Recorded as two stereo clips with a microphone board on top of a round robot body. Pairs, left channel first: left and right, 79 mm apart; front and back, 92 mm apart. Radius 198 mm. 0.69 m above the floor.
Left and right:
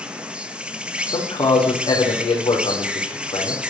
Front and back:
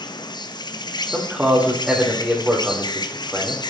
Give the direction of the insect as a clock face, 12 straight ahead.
1 o'clock.